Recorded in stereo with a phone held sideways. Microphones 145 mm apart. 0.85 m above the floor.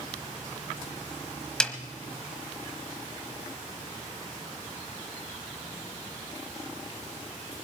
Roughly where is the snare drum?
Centre.